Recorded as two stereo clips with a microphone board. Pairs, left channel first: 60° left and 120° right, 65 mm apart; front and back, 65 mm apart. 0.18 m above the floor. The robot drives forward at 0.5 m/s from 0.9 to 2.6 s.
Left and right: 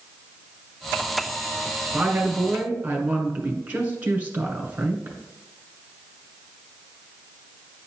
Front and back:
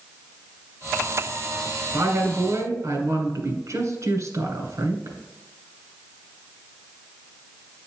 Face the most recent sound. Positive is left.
turn(degrees=180)